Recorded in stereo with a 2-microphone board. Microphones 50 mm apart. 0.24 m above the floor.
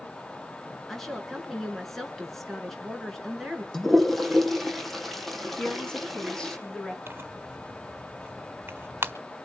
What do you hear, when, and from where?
0.9 s a woman speaking: 5° left (ahead or behind), 3.5 m
3.7 s a toilet flushing: 5° left (ahead or behind), 2.5 m
5.6 s a woman speaking: 20° left (ahead or behind), 2 m
7.1 s tearing paper: 45° right (ahead or behind), 1.4 m